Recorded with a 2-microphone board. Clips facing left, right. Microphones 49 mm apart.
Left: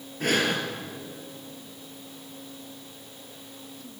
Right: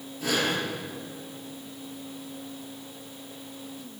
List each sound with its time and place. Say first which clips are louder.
0.2 s breathing: left 2 dB; 50° left (ahead or behind), 4.5 m